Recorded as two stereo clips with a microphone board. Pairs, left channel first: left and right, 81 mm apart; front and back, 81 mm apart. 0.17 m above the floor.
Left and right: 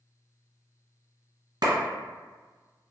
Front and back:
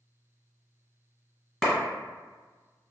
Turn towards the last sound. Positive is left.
turn(degrees=-90)